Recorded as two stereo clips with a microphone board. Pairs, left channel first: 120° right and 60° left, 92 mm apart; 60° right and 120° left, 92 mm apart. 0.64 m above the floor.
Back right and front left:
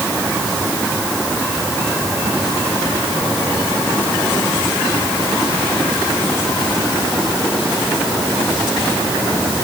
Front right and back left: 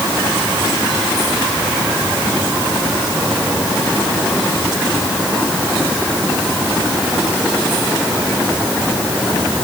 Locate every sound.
Only background noise.